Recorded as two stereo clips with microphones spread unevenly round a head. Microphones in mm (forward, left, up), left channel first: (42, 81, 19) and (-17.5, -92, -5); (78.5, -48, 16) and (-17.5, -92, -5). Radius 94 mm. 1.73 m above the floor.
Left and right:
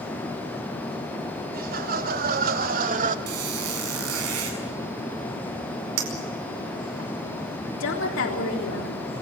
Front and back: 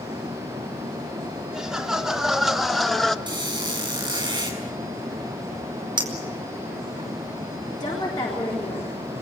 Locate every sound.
1.5 s laughter: 70° right, 4 m; by 3.2 s 60° right, 1.9 m
3.3 s a squeak: 105° right, 7 m
6.0 s a clink: 110° right, 5 m
7.8 s a woman speaking: 90° left, 3.5 m